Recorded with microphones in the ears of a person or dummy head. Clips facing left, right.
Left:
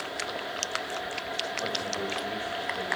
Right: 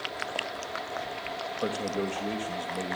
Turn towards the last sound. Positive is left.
turn(degrees=-55)  # may be behind; listen again after turning